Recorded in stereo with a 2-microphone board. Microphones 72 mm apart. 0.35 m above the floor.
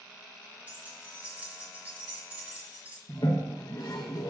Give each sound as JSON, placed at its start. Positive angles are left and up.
{"t": 0.7, "sound": "keys jangling", "side_deg": -20, "distance_m": 2.0}
{"t": 3.1, "sound": "a toilet flushing", "side_deg": 65, "distance_m": 1.1}